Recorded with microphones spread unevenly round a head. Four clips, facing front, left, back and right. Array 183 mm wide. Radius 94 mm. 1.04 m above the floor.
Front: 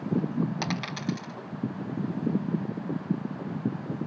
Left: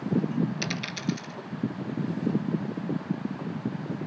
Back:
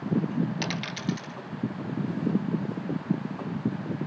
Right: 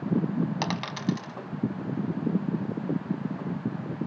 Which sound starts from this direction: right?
A dropped coin, at 0.6 s.